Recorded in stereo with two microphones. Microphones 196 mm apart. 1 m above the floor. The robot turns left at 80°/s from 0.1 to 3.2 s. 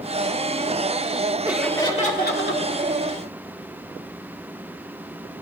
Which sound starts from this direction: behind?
Laughter, at 1.4 s.